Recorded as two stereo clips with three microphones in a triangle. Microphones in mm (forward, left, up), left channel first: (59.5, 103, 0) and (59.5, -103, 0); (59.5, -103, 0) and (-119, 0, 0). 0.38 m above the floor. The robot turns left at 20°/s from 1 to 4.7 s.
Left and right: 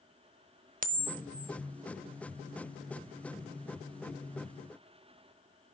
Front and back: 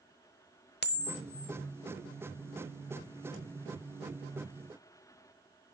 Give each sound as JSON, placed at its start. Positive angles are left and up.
{"t": 0.8, "sound": "a camera shutter", "azimuth_deg": -50, "distance_m": 0.7}